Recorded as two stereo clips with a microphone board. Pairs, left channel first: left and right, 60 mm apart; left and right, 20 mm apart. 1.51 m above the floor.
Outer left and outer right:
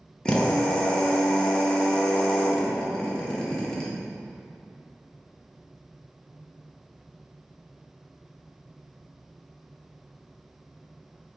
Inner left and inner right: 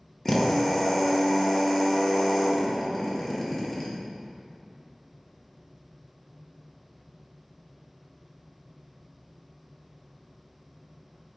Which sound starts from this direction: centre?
A drill, at 0.2 s.